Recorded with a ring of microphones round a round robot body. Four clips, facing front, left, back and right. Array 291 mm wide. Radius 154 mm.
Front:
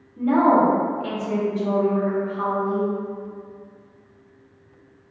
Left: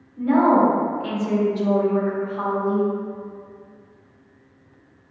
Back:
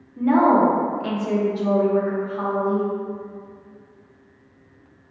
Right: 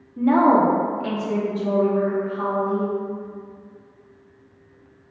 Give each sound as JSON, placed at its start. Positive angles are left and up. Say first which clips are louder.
{"t": 0.2, "sound": "a woman speaking", "louder": "even, back 1 dB", "azimuth_deg": -110, "distance_m": 0.8}